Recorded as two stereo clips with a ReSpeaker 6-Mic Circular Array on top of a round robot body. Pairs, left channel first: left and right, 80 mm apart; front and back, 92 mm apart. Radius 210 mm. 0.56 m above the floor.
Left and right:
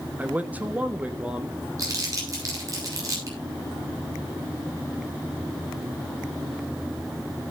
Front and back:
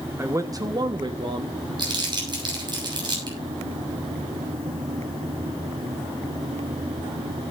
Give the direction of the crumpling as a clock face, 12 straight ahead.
5 o'clock.